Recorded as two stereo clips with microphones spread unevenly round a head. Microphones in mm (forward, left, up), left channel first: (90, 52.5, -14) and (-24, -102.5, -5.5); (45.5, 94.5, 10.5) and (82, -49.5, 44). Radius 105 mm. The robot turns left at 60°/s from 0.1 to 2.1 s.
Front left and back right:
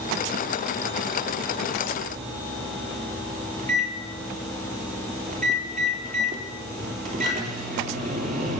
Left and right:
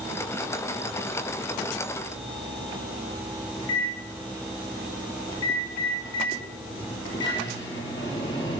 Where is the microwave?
175° left, 3.5 m.